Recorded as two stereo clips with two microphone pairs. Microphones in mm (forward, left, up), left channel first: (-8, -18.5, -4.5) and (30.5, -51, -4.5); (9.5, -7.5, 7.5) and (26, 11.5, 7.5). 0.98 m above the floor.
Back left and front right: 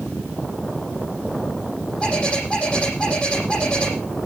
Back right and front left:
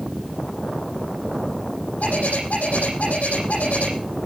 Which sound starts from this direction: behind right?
A bird, at 2.0 s.